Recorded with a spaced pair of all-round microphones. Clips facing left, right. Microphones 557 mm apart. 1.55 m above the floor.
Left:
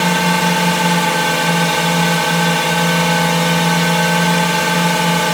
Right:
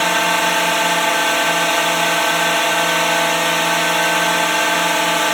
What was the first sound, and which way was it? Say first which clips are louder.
A drone: left 4 dB; 60° left (ahead or behind).